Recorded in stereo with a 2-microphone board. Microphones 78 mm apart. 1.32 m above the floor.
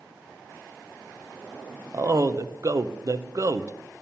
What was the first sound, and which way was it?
A man speaking, 45° right (ahead or behind).